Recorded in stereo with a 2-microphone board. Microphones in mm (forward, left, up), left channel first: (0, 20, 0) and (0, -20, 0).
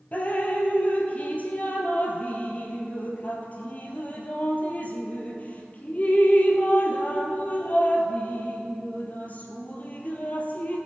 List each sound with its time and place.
0.1 s dripping: 40° left (ahead or behind), 1.7 m